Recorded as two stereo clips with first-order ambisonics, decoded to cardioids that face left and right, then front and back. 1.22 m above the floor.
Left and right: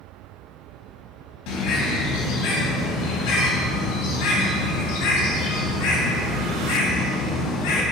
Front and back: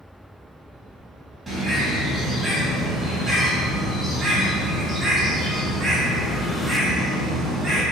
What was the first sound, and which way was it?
A bird, 95° left.